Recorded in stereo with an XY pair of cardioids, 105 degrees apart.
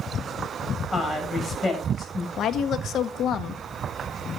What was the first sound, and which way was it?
A woman speaking, 30° left.